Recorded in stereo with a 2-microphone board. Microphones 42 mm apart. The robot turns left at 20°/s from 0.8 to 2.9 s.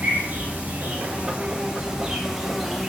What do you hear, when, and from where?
0.0 s an insect: 140° right, 3 m; by 2.9 s straight behind, 3 m